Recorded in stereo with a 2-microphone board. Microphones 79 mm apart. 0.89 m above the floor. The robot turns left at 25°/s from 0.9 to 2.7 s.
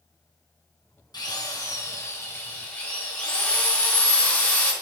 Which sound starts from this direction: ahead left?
A drill, at 1.1 s.